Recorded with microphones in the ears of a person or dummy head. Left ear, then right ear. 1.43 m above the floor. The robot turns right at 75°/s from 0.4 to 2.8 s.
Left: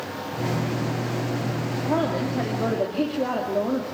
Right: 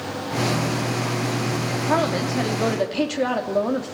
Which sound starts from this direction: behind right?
A woman speaking, at 1.9 s.